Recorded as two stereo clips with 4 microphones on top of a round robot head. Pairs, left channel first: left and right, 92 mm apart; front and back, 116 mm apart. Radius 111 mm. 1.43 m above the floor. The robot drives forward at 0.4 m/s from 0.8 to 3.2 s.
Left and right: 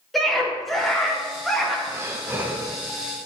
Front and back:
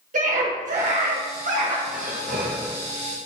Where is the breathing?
155° right, 0.8 m; by 2.8 s 160° right, 1.1 m.